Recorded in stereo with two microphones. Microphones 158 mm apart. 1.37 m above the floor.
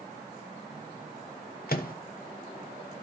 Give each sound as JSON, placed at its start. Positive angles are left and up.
{"t": 1.7, "sound": "a microwave", "side_deg": 65, "distance_m": 0.8}